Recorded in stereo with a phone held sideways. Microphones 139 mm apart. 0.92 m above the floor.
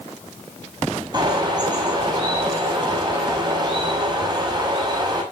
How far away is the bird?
About 6 m.